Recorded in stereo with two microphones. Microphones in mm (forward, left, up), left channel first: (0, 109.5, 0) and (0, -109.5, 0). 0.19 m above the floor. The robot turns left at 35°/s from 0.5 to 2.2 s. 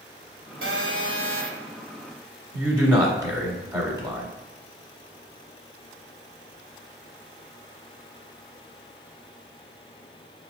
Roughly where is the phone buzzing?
Right.